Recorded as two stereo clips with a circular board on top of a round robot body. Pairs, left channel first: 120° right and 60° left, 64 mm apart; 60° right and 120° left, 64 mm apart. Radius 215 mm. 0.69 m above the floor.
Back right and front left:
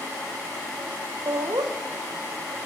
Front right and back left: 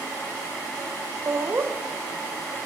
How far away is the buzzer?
I don't hear a buzzer.